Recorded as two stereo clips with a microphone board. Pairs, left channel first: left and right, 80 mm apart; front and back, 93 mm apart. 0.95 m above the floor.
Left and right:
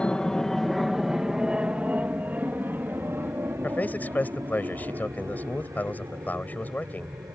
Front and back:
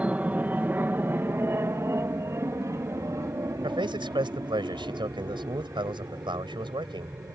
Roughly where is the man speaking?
Behind left.